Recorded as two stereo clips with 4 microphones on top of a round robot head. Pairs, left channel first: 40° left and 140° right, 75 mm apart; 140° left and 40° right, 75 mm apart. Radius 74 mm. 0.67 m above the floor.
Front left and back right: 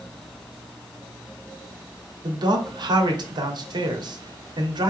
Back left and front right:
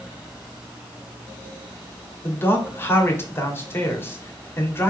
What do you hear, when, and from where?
2.2 s a man speaking: 160° right, 1.4 m